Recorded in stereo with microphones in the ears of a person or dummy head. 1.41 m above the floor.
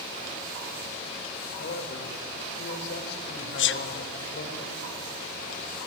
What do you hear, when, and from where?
1.6 s a man speaking: 60° left (ahead or behind), 4.5 m
3.6 s a sneeze: 60° left (ahead or behind), 0.8 m